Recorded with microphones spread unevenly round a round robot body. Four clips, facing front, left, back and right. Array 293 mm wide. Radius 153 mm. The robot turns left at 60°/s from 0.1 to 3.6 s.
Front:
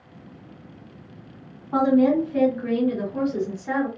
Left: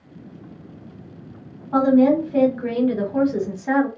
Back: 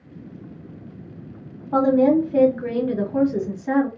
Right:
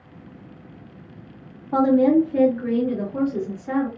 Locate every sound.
1.7 s a woman speaking: 160° right, 1.4 m; by 3.9 s 85° left, 1.4 m